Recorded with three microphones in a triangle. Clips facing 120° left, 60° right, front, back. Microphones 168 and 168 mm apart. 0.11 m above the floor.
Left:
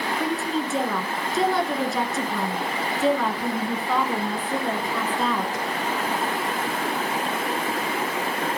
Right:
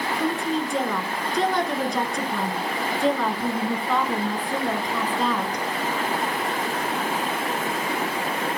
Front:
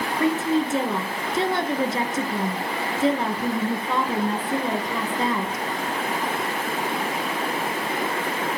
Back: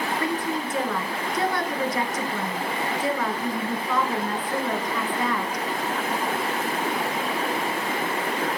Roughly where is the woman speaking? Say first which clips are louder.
Right 2 dB, front 5 dB; ahead left.